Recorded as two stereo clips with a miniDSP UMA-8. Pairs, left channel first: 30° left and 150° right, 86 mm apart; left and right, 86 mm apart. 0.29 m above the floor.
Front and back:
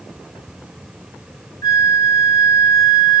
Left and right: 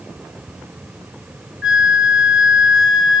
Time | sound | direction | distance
1.6 | a flute | 10° right | 2.5 m